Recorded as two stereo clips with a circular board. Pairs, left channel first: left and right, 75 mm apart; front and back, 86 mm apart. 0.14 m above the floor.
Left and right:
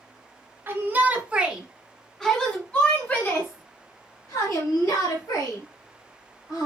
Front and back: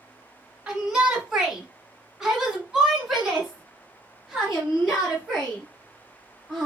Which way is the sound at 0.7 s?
105° right.